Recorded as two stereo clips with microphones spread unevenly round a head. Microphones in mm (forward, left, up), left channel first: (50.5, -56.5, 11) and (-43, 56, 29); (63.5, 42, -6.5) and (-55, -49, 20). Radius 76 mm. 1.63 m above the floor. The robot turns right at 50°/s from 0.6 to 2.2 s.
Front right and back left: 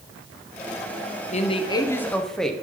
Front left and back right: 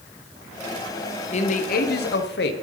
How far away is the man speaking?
About 1.2 m.